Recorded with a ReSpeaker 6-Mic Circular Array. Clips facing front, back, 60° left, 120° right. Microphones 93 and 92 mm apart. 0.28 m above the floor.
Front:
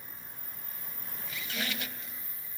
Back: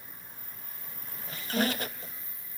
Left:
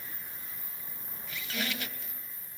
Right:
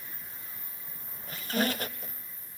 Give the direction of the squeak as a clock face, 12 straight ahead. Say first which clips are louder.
Back 9 dB, right 7 dB; 5 o'clock.